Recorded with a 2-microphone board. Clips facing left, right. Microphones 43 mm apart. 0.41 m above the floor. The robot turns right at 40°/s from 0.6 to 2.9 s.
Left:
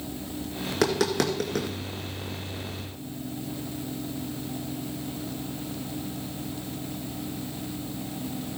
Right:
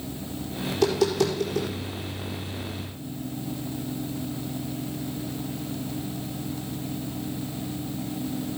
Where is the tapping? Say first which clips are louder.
Right 2 dB; 75° left (ahead or behind), 2.5 m; by 1.7 s 65° left (ahead or behind), 2.5 m.